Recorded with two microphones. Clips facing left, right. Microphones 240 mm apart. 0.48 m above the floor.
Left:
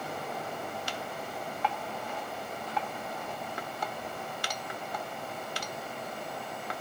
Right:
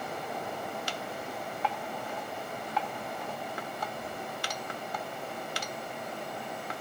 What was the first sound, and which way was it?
Only background noise.